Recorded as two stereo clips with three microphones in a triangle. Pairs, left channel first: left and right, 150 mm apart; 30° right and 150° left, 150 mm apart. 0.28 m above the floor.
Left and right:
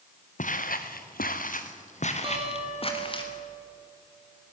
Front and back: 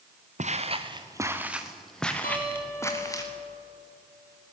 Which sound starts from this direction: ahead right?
A guitar, at 2.2 s.